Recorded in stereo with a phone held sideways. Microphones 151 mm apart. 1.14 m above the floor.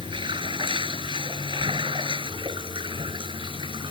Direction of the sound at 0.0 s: 35° right (ahead or behind).